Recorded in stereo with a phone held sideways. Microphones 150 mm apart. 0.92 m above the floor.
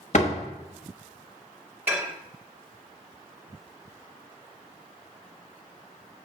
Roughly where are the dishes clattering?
Centre.